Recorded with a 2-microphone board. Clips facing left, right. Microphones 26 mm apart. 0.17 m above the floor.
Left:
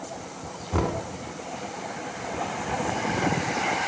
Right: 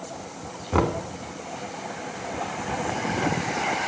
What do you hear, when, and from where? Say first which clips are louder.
0.7 s knocking: right 4 dB; 25° right (ahead or behind), 0.9 m